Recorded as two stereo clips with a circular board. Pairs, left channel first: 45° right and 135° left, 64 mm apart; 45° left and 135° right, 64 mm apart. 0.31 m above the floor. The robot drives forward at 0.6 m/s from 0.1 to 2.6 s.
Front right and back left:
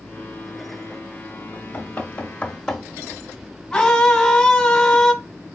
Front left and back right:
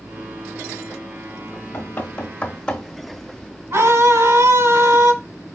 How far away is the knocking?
About 1.3 m.